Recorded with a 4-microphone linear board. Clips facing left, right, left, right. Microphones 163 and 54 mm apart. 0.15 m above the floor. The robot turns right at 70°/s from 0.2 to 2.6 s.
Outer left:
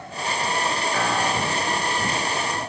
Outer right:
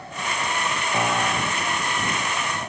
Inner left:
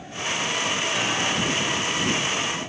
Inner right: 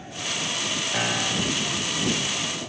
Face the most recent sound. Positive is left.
turn(degrees=95)